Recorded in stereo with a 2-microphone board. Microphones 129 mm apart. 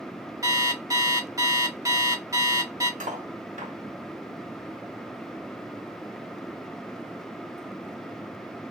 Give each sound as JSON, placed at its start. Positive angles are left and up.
{"t": 0.4, "sound": "an alarm clock", "side_deg": -25, "distance_m": 0.9}
{"t": 3.0, "sound": "cutlery clinking", "side_deg": -75, "distance_m": 1.1}